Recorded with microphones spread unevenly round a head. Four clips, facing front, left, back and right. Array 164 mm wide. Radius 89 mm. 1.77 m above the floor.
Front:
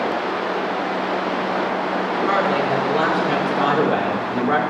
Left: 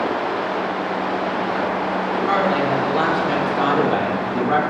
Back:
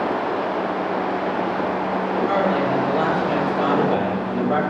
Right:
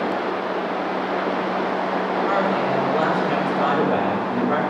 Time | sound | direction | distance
2.2 | a woman speaking | 40° left | 6.5 m